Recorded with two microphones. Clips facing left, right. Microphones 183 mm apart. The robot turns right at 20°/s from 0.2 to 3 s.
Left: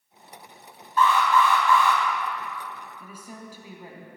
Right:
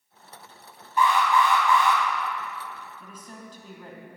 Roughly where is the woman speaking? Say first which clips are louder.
Left 2 dB; centre.